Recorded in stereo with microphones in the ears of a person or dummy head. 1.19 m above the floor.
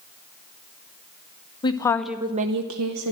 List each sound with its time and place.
1.6 s a woman speaking: 30° left (ahead or behind), 1.0 m; by 3.1 s 80° right, 1.1 m